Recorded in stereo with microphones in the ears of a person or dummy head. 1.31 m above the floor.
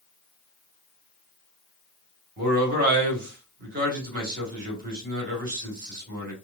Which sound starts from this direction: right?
A man speaking, at 2.4 s.